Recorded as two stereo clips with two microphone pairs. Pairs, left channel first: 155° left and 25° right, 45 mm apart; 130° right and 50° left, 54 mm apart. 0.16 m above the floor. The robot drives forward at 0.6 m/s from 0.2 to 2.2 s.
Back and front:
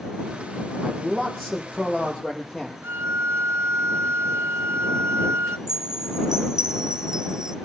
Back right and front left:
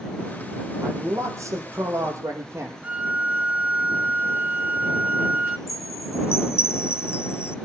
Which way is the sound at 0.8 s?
70° left.